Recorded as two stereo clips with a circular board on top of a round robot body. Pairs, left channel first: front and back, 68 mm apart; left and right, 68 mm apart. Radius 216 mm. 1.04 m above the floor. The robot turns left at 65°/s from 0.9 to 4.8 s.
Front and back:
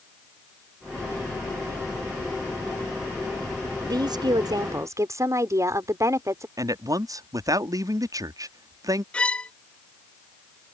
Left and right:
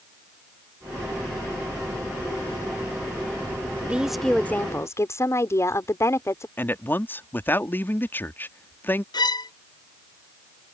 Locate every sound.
3.9 s a woman speaking: 160° right; by 6.5 s 140° left
6.6 s a man speaking: 150° left
9.1 s a violin: 75° left